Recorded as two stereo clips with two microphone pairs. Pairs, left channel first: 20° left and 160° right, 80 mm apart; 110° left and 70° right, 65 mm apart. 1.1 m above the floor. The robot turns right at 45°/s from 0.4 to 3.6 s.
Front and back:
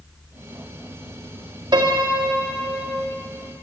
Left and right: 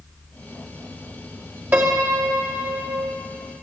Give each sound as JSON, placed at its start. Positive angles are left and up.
{"t": 1.7, "sound": "a piano", "azimuth_deg": -135, "distance_m": 1.8}